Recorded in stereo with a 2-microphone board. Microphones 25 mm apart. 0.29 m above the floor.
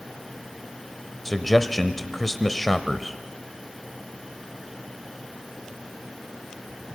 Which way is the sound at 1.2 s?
10° left (ahead or behind).